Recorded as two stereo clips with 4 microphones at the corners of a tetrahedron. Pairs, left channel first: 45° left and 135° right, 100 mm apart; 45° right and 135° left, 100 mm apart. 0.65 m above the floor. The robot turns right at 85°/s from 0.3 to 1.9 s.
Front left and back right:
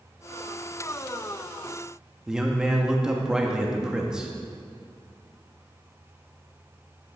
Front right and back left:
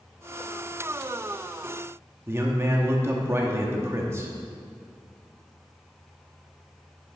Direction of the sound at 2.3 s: 150° left.